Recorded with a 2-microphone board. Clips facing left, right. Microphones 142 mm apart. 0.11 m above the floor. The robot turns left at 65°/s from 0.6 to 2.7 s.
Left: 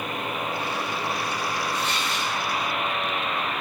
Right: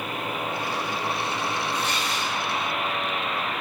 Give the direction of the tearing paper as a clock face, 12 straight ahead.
4 o'clock.